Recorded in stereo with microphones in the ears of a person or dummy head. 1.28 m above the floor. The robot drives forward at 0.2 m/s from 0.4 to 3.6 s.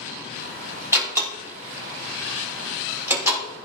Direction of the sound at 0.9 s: 5° right (ahead or behind).